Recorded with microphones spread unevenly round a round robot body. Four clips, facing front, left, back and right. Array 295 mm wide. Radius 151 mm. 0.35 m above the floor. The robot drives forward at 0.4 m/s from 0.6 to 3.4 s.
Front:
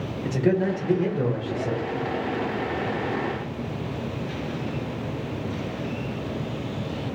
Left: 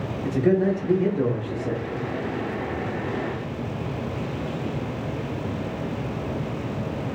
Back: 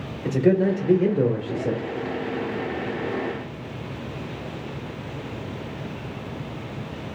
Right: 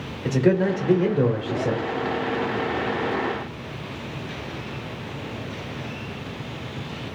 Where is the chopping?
I don't hear chopping.